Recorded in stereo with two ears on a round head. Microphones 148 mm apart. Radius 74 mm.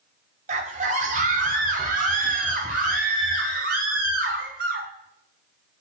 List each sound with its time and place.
0.5 s a scream: 45° right (ahead or behind), 2 m; by 4.9 s 60° right (ahead or behind), 4.5 m